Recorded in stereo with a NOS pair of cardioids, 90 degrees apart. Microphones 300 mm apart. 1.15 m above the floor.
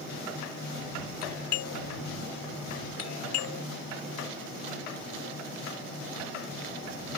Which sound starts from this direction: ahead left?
A doorbell, at 1.2 s.